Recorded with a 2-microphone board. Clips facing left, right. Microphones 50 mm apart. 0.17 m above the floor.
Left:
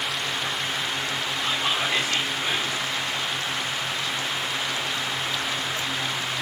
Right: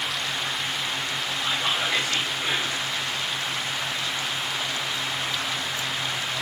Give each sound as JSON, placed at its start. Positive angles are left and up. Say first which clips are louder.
{"t": 1.4, "sound": "whispering", "louder": "even", "side_deg": 5, "distance_m": 3.5}